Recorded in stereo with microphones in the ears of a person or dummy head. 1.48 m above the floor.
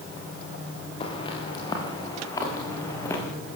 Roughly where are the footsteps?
Left.